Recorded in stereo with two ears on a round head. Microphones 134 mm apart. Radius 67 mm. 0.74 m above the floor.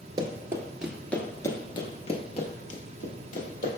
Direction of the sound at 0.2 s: 30° right (ahead or behind).